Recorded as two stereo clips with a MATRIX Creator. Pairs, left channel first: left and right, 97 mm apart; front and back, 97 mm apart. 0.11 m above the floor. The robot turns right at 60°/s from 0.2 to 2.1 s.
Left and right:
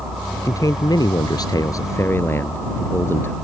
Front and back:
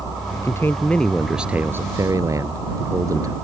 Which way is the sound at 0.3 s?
40° left.